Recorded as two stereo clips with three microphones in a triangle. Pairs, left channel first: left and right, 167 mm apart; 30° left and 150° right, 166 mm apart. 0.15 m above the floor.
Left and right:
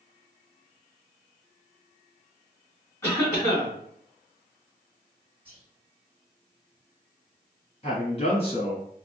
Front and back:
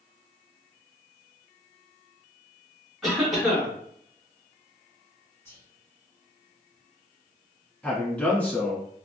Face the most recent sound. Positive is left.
turn(degrees=110)